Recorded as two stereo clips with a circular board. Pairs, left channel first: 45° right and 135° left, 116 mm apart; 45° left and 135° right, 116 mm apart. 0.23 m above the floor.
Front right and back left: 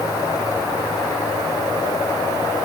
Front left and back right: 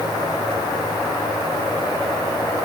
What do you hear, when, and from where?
Only background noise.